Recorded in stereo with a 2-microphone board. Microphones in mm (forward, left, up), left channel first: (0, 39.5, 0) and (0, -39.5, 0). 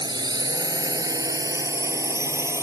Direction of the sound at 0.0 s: 60° right (ahead or behind).